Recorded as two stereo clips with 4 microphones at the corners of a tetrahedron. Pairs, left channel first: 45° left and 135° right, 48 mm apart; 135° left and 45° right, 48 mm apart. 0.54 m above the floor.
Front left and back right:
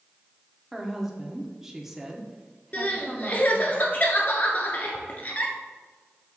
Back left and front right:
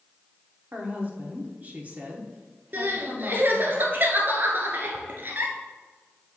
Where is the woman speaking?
55° right, 1.3 m.